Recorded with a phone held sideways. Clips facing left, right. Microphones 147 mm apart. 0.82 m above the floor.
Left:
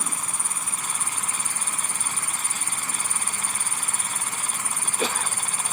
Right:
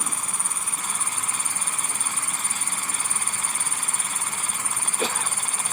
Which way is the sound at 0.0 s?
80° right.